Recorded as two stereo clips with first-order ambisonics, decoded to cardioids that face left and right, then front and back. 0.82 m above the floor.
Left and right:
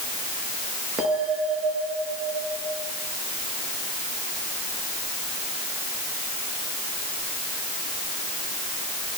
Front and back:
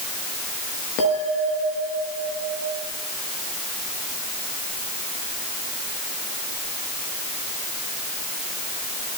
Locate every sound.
1.0 s a bell: 20° right, 8.5 m